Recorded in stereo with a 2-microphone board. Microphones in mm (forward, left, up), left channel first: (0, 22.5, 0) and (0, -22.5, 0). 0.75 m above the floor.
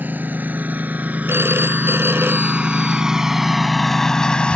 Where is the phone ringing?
70° right (ahead or behind).